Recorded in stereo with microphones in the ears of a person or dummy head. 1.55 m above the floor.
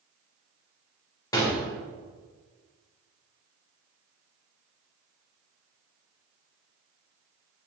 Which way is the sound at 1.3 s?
15° left (ahead or behind).